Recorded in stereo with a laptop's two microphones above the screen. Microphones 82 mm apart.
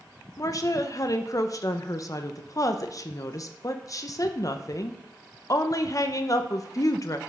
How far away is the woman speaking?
About 0.9 m.